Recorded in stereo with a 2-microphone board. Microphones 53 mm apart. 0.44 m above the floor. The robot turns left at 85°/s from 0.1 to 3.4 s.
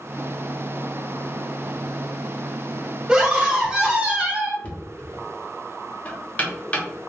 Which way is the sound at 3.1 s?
15° right (ahead or behind).